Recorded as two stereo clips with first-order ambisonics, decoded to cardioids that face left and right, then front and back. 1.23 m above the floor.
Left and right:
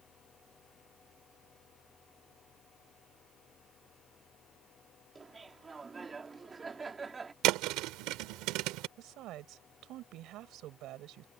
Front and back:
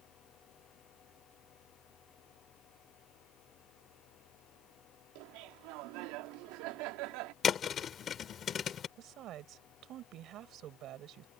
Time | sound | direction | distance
5.2 | laughter | 165° right | ?
7.4 | a thud | 60° right | ?
9.0 | a woman speaking | 135° right | ?